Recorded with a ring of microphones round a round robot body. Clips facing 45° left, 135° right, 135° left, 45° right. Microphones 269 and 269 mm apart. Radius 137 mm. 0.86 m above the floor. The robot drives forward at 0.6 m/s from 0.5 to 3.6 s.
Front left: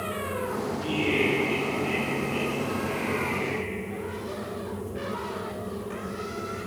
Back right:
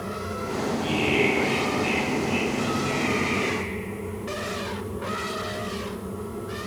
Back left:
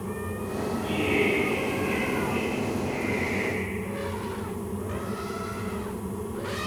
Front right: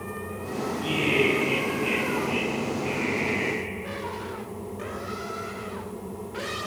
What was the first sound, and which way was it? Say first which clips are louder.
Laughter: back right 1 dB, front right 1 dB; 105° right.